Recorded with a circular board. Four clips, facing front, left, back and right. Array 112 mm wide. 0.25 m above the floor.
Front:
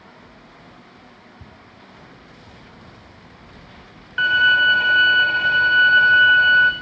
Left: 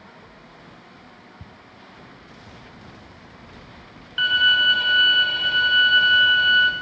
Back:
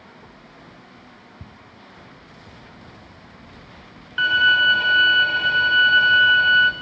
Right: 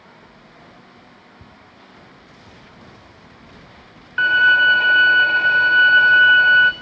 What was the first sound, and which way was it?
Ticking, 155° left.